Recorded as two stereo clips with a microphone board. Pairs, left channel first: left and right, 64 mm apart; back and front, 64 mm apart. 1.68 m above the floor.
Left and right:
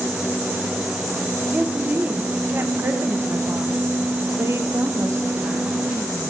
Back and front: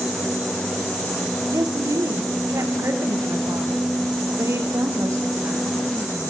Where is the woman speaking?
25° right, 1.6 m; by 5.8 s 50° right, 4 m.